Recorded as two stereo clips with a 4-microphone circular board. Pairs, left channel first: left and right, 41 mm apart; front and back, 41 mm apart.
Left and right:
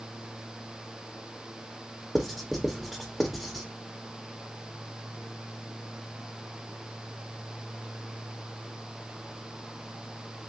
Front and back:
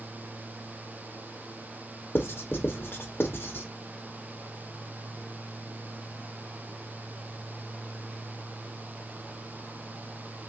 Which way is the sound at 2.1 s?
Straight ahead.